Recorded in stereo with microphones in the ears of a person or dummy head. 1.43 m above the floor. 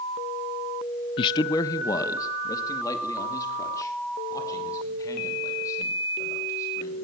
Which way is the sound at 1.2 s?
25° left (ahead or behind).